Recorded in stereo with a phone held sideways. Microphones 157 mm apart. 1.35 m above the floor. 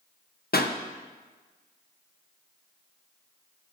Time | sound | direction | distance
0.5 | a pop | 75° left (ahead or behind) | 0.7 m